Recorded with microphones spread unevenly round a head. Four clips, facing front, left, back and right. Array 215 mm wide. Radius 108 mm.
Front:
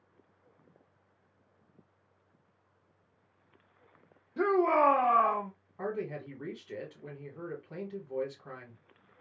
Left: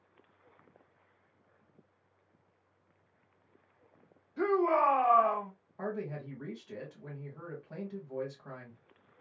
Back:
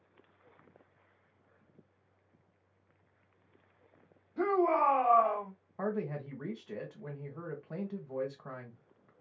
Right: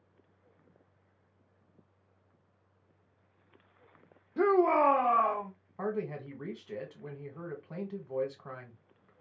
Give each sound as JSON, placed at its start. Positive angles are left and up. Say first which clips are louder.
{"t": 4.4, "sound": "a shout", "louder": "right 3 dB, front 2 dB", "azimuth_deg": -60, "distance_m": 0.9}
{"t": 5.8, "sound": "a man speaking", "louder": "right 3 dB, back 1 dB", "azimuth_deg": -140, "distance_m": 1.6}